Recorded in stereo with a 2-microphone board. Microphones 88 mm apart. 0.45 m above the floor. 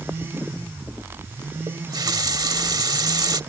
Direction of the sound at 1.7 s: 50° right (ahead or behind).